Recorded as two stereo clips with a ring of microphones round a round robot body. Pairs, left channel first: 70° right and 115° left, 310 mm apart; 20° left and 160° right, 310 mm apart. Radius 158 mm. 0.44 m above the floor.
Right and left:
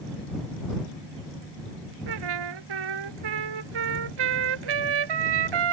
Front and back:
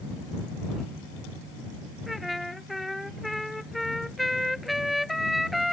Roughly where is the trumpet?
Left.